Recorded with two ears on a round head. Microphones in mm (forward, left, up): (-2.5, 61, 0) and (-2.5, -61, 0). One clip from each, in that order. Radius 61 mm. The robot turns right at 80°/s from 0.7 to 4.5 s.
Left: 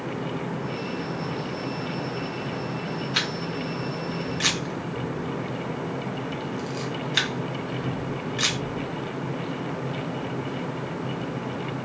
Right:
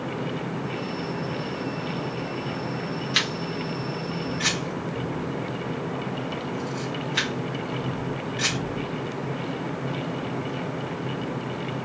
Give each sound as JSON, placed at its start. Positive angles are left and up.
{"t": 3.1, "sound": "a camera shutter", "side_deg": -35, "distance_m": 1.4}